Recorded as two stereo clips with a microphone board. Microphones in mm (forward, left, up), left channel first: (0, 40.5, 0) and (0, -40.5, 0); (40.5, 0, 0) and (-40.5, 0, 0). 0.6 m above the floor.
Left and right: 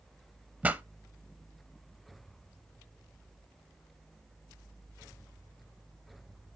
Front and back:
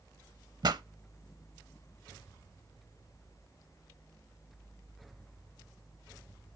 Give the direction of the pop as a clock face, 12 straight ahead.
5 o'clock.